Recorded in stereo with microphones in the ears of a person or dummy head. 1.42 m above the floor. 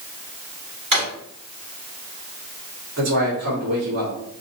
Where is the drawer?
40° right (ahead or behind), 2 m.